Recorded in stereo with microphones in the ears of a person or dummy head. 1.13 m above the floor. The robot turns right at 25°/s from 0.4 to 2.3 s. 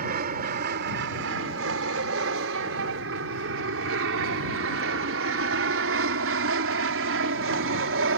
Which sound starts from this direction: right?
An aircraft, at 0.0 s.